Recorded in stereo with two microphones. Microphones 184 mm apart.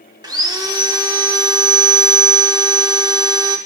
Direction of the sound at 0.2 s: 20° right (ahead or behind).